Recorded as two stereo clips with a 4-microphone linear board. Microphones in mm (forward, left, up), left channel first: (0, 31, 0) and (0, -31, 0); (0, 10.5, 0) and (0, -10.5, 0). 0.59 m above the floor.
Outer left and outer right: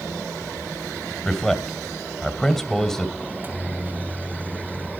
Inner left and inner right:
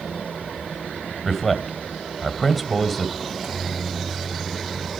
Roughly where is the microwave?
Right.